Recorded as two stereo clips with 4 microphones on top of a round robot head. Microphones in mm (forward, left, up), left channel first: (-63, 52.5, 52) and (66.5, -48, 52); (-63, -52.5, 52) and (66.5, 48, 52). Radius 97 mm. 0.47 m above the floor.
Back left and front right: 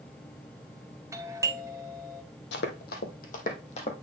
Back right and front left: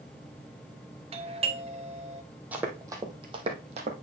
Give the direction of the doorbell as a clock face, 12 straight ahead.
11 o'clock.